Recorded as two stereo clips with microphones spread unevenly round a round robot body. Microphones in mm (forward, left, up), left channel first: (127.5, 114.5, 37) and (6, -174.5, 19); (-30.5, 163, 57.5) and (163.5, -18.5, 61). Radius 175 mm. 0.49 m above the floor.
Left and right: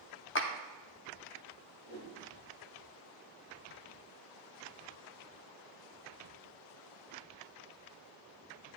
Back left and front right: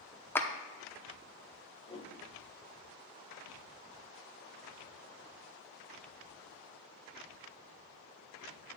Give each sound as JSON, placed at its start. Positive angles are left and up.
{"t": 0.3, "sound": "a clap", "azimuth_deg": 65, "distance_m": 0.9}
{"t": 1.9, "sound": "a whoosh", "azimuth_deg": 65, "distance_m": 1.9}